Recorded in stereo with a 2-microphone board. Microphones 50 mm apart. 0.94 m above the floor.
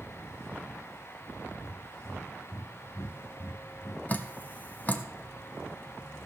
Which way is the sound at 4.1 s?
35° left (ahead or behind).